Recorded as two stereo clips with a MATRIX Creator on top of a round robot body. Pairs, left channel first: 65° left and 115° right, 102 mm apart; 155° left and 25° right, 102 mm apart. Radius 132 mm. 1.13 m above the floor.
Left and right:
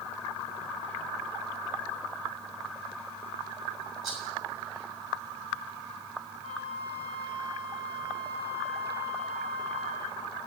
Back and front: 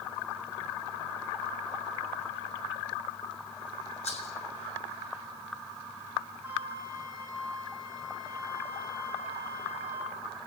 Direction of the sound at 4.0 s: 165° left.